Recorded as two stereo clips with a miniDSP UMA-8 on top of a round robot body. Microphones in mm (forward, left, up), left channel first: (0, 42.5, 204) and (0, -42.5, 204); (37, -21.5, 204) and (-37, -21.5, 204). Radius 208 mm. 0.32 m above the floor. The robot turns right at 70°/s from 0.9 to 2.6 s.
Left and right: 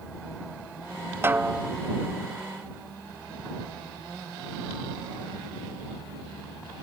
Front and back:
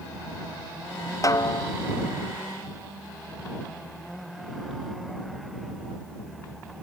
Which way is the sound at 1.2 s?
35° right.